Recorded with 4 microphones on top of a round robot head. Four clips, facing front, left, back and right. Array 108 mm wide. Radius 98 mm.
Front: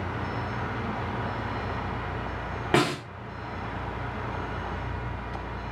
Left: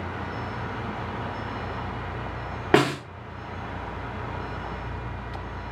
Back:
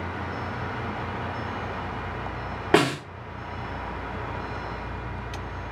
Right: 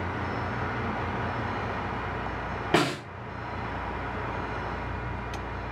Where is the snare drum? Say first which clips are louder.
Left 5 dB, back 3 dB; 110° left, 1.2 m.